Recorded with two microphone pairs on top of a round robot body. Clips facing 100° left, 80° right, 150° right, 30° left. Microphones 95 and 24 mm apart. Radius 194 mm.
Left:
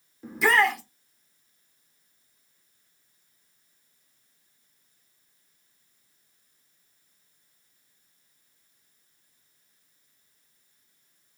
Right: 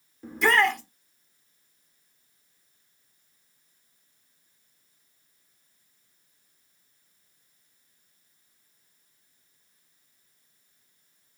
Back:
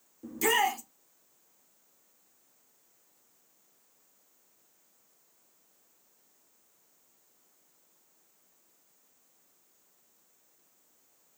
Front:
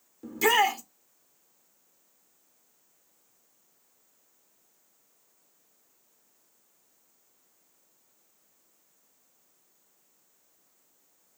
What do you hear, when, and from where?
0.2 s a shout: 15° left, 1.0 m